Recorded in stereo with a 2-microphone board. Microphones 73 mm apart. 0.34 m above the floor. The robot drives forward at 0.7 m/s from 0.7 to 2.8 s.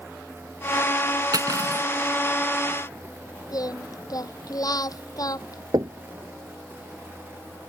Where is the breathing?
I don't hear breathing.